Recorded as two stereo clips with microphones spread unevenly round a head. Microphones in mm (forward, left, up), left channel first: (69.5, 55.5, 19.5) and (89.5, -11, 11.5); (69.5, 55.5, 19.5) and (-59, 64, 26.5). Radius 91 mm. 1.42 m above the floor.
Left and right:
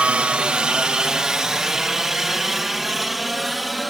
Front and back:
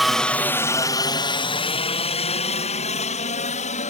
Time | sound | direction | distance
0.0 | a helicopter | 90° right | ?